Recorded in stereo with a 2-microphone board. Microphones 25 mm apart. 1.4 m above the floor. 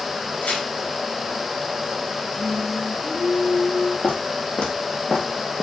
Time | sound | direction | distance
0.4 | tearing paper | 70° left (ahead or behind) | 4 m
2.4 | singing | 80° left | 3.5 m
4.0 | footsteps | 65° left (ahead or behind) | 3.5 m